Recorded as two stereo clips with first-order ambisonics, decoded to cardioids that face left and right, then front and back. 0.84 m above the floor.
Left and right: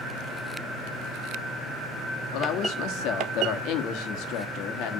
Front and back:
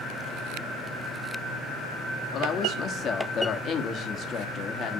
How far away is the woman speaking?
About 1.3 m.